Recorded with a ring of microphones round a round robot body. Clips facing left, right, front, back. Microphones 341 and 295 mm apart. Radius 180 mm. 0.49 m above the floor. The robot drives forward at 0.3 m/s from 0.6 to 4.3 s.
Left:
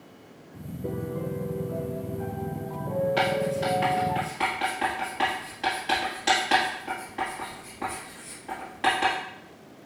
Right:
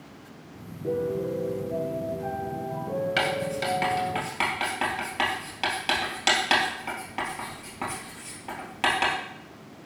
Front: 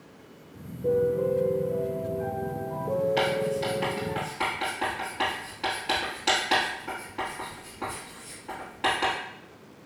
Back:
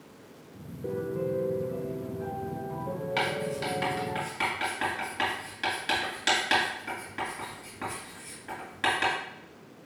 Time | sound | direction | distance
0.8 | a piano | 95° left | 1.8 m
3.2 | writing | 125° right | 1.8 m